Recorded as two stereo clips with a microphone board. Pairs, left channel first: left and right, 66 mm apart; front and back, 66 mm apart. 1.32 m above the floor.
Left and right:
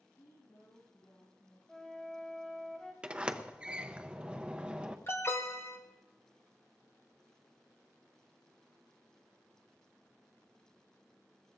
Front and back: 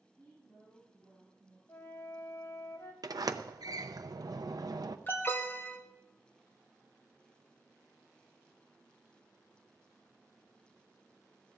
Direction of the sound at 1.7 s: 15° left.